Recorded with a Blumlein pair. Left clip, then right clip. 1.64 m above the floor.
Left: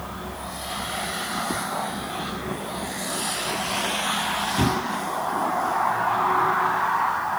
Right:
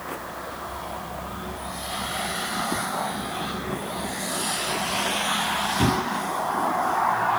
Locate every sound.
Only background noise.